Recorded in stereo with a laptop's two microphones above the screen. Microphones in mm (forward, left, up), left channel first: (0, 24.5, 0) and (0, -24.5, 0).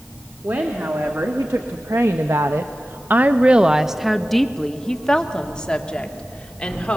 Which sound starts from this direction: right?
A woman speaking, at 0.4 s.